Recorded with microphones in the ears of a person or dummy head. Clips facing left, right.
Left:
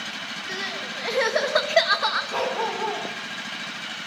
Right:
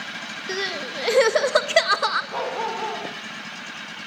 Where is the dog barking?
5° left (ahead or behind), 5 m.